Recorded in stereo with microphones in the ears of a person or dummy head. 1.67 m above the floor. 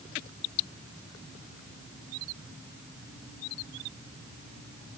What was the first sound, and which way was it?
Only background noise.